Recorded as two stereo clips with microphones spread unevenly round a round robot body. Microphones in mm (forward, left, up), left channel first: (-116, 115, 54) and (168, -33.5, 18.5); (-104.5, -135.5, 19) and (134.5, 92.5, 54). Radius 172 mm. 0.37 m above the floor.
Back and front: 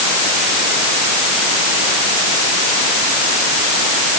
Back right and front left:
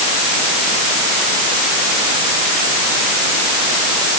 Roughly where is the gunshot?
I don't hear a gunshot.